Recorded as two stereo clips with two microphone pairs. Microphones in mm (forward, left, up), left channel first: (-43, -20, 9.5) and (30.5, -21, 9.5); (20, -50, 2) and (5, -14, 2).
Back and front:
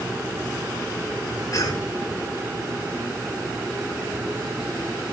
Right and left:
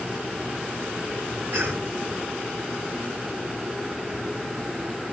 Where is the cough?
135° left, 6 m.